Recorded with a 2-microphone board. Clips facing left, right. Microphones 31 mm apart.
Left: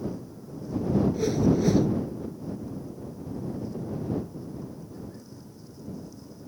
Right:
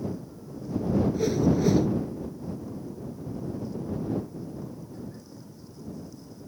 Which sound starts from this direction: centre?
A whoosh, at 1.1 s.